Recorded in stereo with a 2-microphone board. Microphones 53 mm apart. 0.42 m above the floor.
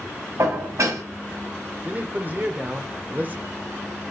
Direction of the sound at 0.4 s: 65° right (ahead or behind).